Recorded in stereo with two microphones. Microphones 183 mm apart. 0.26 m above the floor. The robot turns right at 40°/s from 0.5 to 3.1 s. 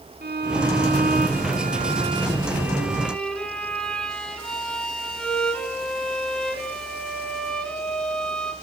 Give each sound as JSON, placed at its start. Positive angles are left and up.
{"t": 0.2, "sound": "a violin", "azimuth_deg": -100, "distance_m": 2.5}